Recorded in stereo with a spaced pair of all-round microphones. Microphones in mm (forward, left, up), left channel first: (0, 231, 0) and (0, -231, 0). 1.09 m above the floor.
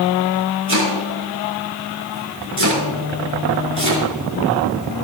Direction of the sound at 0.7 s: 65° right (ahead or behind).